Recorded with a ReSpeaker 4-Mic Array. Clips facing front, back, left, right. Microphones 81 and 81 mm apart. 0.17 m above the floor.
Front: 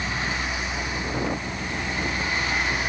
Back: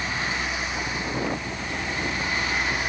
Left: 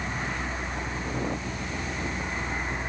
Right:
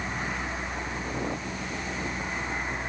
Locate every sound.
Only background noise.